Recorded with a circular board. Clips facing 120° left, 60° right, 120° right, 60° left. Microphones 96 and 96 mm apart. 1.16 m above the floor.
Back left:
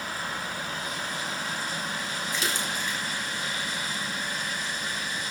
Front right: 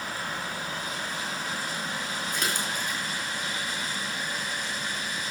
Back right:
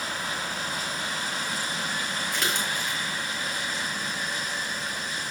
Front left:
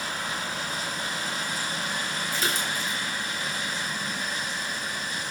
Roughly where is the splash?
Right.